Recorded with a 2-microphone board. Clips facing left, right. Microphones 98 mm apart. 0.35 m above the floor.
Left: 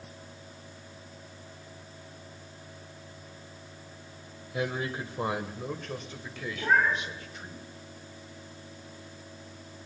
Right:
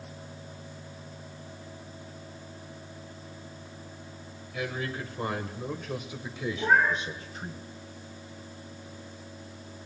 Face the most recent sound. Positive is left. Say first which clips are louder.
# right 1 dB
turn(degrees=-10)  # may be behind; listen again after turning